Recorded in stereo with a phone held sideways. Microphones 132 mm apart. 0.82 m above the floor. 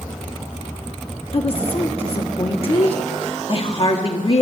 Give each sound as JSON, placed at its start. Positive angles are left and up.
{"t": 1.3, "sound": "a woman speaking", "side_deg": 45, "distance_m": 1.6}